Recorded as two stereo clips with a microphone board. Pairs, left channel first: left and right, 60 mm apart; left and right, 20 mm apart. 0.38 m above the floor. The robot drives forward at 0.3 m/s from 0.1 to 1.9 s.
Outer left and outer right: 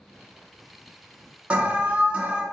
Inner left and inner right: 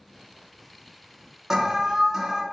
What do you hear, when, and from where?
1.5 s an alarm: 20° right (ahead or behind), 0.5 m